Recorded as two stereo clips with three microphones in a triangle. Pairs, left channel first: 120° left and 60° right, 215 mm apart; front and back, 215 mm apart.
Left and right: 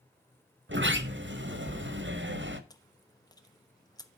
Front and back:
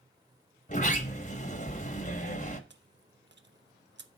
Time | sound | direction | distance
0.7 | a sliding door | 50° right | 1.3 m
2.7 | chewing | 170° right | 0.9 m